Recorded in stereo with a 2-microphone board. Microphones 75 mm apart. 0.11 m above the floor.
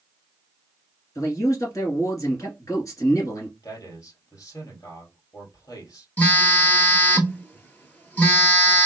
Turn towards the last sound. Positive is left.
turn(degrees=20)  # may be behind; listen again after turning